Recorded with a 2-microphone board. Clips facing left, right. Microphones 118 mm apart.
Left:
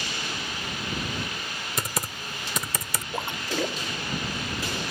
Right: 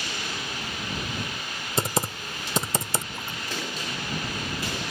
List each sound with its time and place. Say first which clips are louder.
1.8 s typing on a keyboard: right 6 dB; 30° right (ahead or behind)
3.1 s a splash: left 5 dB; 70° left (ahead or behind)